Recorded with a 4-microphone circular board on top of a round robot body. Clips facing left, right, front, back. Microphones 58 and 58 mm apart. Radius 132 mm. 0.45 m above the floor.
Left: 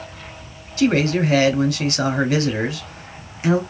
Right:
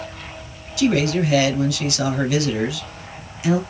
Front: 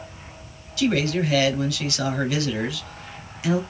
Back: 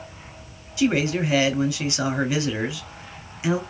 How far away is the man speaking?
About 1.1 m.